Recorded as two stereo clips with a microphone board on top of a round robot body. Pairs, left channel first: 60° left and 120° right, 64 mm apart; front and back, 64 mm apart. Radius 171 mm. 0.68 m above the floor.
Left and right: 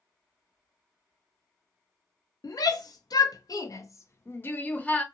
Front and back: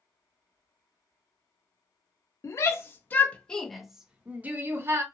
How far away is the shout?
About 1.1 m.